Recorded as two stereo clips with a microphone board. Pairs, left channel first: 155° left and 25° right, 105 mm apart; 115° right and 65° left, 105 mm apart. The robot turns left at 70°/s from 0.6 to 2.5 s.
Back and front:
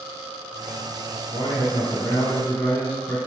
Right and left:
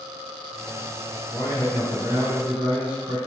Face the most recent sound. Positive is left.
turn(degrees=105)